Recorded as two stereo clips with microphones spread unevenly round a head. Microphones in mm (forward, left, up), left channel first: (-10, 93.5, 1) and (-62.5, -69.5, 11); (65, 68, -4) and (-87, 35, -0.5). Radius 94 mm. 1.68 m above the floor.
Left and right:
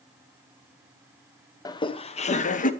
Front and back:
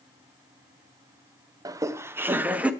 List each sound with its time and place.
1.6 s laughter: 135° left, 0.6 m; by 2.7 s 110° left, 1.0 m